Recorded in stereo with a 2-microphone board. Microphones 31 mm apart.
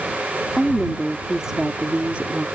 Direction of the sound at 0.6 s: 5° left (ahead or behind).